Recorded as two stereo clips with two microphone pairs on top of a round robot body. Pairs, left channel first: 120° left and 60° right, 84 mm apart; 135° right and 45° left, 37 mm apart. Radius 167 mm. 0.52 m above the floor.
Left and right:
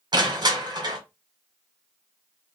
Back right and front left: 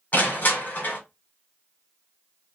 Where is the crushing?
95° right, 1.7 m.